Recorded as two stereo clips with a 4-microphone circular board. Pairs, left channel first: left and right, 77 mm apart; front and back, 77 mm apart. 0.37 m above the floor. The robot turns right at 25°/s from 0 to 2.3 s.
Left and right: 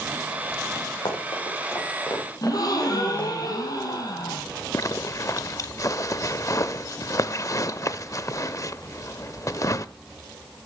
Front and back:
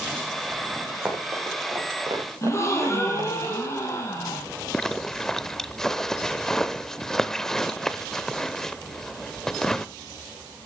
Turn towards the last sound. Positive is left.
turn(degrees=80)